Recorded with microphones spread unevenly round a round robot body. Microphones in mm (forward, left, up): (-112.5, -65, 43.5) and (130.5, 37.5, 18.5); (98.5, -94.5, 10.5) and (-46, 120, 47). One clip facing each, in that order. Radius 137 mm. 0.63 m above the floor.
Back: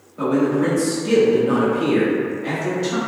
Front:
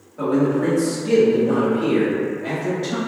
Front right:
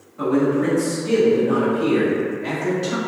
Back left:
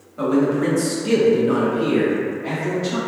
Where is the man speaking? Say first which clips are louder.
Back 1 dB, even; 115° left, 1.2 m; by 3.0 s 85° right, 1.2 m.